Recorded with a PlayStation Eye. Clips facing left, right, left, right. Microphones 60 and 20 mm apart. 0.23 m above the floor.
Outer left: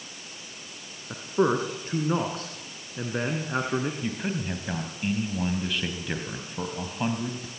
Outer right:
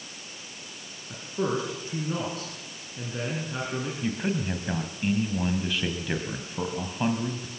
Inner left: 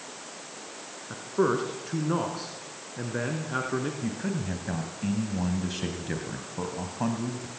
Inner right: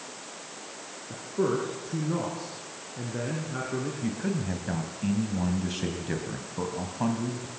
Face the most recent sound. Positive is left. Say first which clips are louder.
# outer right 2 dB, inner right 1 dB
turn(degrees=0)  # may be behind; listen again after turning